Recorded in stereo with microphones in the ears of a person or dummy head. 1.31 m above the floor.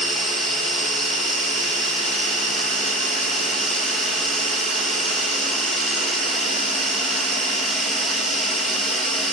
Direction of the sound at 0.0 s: Centre (ahead or behind).